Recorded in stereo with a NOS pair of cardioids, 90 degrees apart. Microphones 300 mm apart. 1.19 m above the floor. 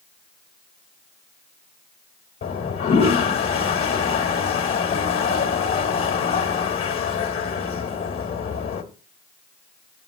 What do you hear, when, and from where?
2.4 s a toilet flushing: 50° left, 1.4 m